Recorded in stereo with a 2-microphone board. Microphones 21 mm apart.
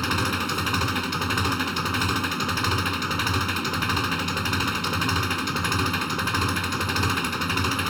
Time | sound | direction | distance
0.0 | an engine running | centre (ahead or behind) | ?